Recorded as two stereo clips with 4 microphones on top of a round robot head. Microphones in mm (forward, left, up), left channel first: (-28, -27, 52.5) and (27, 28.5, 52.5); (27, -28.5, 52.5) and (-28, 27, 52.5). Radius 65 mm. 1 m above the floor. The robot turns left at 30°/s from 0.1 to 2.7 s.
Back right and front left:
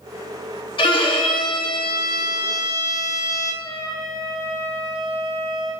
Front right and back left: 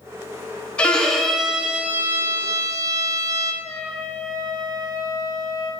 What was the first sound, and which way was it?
A violin, 120° right.